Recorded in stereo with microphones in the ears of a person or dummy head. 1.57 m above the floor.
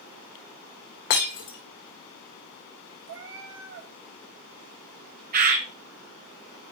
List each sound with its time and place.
1.1 s breaking glass: 50° left (ahead or behind), 1.8 m
3.1 s a cat meowing: 55° right (ahead or behind), 1.6 m
5.3 s a bird: 45° right (ahead or behind), 1.4 m